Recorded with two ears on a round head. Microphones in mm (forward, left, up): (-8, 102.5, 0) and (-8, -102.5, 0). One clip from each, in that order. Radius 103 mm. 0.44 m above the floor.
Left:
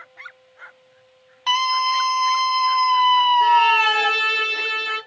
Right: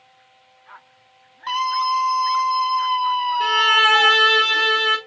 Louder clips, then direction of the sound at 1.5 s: Left 2 dB; 55° left (ahead or behind).